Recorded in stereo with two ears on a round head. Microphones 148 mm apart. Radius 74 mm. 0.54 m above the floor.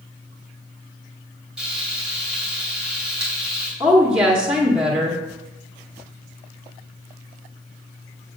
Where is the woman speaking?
10° right (ahead or behind), 1.0 m.